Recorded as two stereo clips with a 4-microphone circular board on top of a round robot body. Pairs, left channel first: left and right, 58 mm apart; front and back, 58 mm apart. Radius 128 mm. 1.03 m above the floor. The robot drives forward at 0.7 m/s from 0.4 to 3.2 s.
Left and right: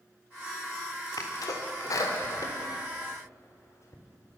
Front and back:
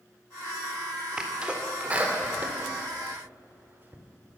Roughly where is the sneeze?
Left.